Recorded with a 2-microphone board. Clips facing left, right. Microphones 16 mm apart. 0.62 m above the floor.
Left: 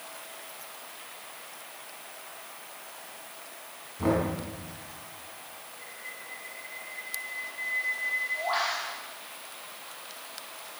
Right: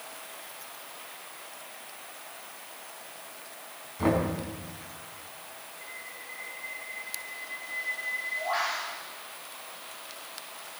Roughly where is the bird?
Left.